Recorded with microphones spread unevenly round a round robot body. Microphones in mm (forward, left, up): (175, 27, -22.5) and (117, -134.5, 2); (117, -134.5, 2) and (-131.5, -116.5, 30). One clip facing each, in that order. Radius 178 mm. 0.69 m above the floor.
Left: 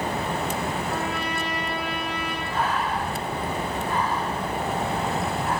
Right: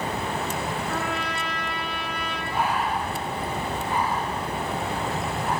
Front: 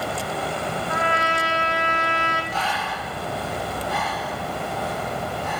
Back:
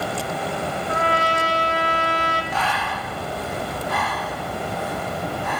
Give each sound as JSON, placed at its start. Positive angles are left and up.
{"t": 0.9, "sound": "a trumpet", "azimuth_deg": -130, "distance_m": 3.5}
{"t": 2.5, "sound": "breathing", "azimuth_deg": 165, "distance_m": 1.6}